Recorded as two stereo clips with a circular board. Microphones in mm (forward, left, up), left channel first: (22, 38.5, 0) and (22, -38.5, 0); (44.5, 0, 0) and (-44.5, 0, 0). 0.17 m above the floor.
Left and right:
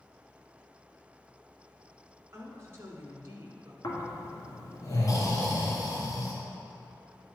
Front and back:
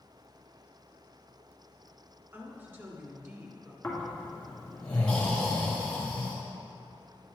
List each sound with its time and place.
2.3 s a woman speaking: 125° right, 1.5 m
3.8 s snoring: 75° left, 2 m